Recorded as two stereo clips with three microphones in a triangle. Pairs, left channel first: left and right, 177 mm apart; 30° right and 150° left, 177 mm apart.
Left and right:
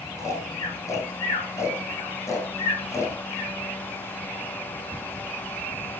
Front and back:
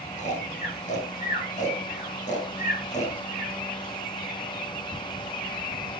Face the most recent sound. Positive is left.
turn(degrees=15)